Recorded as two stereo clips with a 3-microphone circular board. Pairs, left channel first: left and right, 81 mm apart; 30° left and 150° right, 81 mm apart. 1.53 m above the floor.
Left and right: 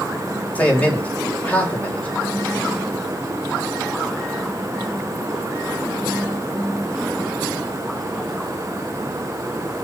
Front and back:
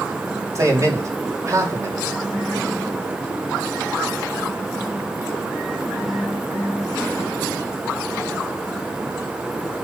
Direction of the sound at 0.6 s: 160° left.